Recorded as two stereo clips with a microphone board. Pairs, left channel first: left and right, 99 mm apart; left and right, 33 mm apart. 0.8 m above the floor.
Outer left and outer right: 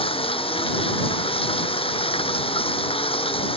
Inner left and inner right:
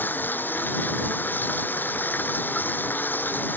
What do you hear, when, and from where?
0.0 s running water: 70° left (ahead or behind)